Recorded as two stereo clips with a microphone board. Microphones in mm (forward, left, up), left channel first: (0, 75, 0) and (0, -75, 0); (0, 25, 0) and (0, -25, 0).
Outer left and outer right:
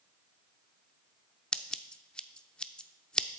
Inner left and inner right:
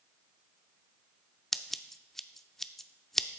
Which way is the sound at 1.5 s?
5° left (ahead or behind).